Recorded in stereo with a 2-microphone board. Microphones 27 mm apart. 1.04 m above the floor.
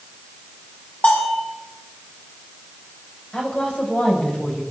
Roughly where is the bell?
Left.